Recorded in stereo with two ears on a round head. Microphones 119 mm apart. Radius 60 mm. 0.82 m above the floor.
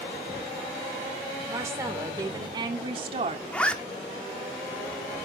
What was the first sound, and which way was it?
A woman speaking, 20° right (ahead or behind).